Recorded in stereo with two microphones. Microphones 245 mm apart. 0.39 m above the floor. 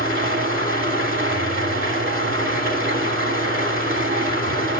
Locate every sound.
0.0 s an engine running: 55° right (ahead or behind), 1.3 m